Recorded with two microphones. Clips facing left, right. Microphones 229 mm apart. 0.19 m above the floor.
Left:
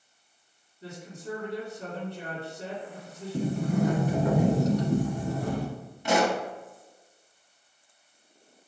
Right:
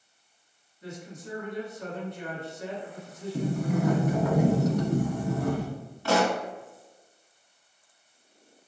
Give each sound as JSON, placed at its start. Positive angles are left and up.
{"t": 0.8, "sound": "a woman speaking", "side_deg": 35, "distance_m": 2.0}
{"t": 3.3, "sound": "a sliding door", "side_deg": 35, "distance_m": 1.0}
{"t": 6.0, "sound": "a pop", "side_deg": 20, "distance_m": 0.8}